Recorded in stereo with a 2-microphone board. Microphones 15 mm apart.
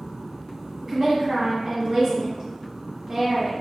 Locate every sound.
0.8 s a woman speaking: 35° right (ahead or behind), 1.4 m